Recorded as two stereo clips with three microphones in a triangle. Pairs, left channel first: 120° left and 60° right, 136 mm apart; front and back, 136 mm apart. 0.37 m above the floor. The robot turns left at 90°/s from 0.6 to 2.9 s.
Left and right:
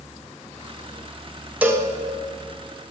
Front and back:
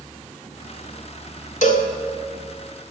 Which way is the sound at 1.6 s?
20° left.